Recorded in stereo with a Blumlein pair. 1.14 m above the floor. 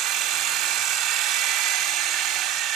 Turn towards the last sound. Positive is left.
turn(degrees=-35)